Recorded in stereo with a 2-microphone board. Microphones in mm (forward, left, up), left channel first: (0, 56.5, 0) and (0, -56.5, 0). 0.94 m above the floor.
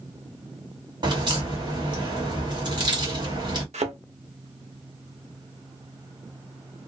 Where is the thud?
75° right (ahead or behind), 0.7 m.